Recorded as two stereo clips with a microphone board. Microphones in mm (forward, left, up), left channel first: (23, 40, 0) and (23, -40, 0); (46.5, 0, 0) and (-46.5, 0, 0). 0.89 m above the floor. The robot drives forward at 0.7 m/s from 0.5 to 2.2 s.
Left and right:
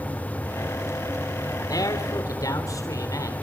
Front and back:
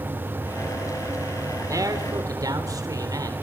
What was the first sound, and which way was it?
A man speaking, 130° left.